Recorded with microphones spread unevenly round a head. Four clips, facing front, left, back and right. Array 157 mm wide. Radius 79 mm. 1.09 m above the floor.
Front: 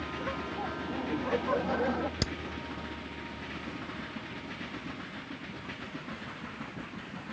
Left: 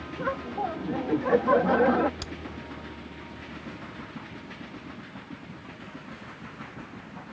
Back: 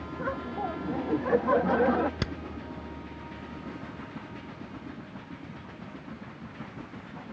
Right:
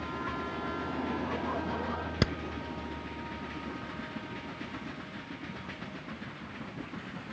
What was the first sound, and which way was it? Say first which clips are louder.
Laughter: left 10 dB, back 5 dB; 110° left.